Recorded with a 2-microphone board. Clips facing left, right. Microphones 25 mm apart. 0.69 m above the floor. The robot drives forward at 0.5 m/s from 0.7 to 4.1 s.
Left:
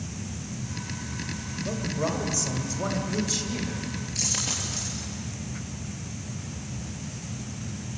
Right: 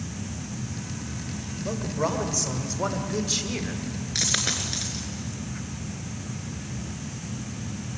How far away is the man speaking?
About 3 m.